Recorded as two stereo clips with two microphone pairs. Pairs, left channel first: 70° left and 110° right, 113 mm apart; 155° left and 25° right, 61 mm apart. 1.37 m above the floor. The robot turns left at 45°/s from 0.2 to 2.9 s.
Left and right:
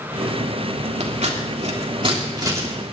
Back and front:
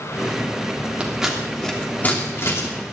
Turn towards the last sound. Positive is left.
turn(degrees=175)